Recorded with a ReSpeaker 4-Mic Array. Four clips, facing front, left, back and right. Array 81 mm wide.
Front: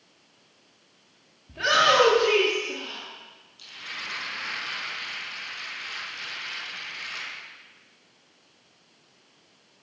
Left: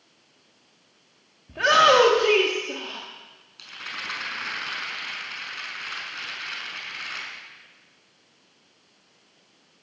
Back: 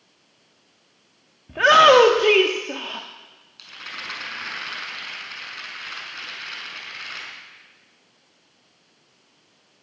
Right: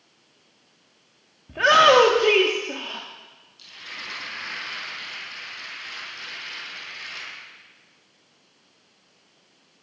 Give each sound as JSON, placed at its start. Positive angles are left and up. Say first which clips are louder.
{"t": 1.5, "sound": "a shout", "louder": "right 2 dB, back 9 dB", "azimuth_deg": -165, "distance_m": 1.2}
{"t": 3.6, "sound": "a rattle", "louder": "left 4 dB, back 2 dB", "azimuth_deg": 125, "distance_m": 5.5}